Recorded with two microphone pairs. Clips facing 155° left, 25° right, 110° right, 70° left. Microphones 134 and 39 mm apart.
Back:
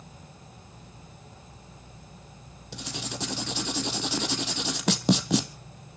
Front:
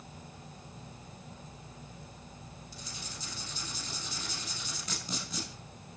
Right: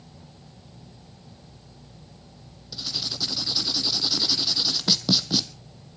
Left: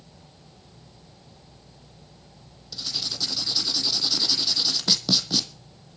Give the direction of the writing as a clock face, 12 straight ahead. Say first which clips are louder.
Back 14 dB, even; 6 o'clock.